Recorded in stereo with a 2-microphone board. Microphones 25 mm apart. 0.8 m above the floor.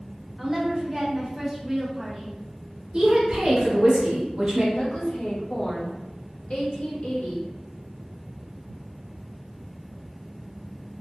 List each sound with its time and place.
0.4 s a woman speaking: centre (ahead or behind), 0.6 m
2.9 s a woman speaking: 35° right (ahead or behind), 1.1 m
4.8 s a woman speaking: 50° left (ahead or behind), 1.0 m